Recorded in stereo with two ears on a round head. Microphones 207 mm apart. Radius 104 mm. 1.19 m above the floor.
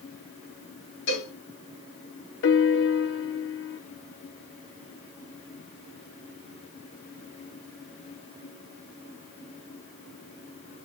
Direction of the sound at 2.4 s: 55° left (ahead or behind).